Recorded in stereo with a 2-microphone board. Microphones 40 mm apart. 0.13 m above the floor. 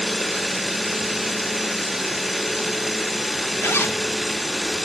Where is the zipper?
90° left.